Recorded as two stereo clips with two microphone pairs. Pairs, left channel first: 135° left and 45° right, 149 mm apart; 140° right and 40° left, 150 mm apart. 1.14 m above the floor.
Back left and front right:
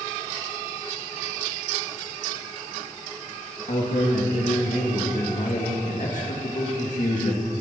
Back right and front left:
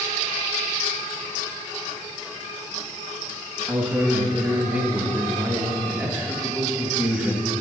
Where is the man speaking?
120° left, 1.7 m.